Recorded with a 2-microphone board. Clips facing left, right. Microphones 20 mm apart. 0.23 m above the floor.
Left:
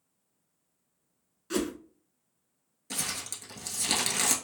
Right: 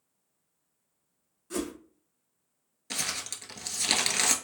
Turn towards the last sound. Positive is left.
turn(degrees=-30)  # may be behind; listen again after turning